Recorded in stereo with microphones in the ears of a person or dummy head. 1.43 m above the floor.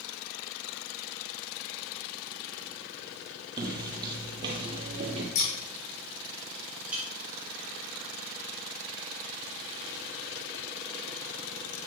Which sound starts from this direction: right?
Footsteps, at 3.6 s.